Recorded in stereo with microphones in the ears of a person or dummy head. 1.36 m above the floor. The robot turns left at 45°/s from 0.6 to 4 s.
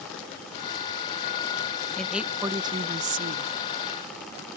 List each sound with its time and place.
2.0 s a woman speaking: 10° left; by 3.5 s 60° right